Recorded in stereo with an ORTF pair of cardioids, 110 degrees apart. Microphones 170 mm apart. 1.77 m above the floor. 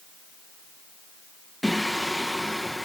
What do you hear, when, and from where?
1.6 s singing: straight ahead